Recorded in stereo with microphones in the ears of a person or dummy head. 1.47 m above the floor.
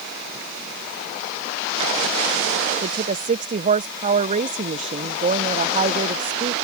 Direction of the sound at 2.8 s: 35° right (ahead or behind).